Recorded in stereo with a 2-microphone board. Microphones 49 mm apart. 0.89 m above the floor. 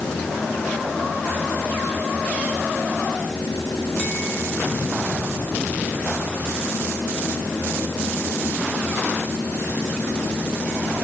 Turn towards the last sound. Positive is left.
No sound to turn to.